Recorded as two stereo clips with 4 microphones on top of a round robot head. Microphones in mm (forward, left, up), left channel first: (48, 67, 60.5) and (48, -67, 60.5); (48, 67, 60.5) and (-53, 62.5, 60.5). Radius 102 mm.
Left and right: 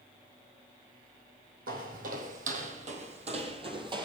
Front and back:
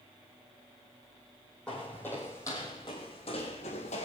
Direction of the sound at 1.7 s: 80° right.